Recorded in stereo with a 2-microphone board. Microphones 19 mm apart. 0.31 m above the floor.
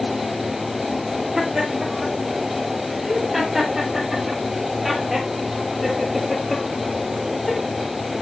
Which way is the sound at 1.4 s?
30° right (ahead or behind).